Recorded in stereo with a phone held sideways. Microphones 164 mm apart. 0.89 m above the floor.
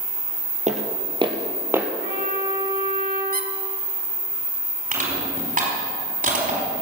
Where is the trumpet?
75° right (ahead or behind), 6.5 m.